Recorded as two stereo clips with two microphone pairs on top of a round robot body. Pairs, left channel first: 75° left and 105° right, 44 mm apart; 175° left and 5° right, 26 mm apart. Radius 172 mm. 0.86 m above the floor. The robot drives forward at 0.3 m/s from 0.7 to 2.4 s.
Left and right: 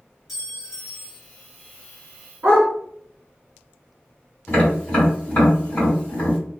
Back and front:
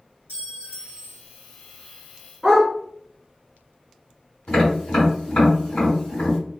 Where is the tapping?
140° left, 1.7 m.